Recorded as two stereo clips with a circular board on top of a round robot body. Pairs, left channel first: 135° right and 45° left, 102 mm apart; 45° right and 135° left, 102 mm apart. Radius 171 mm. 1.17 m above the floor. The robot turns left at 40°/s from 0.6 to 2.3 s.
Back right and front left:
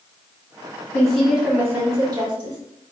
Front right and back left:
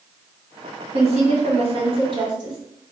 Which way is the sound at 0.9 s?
145° left.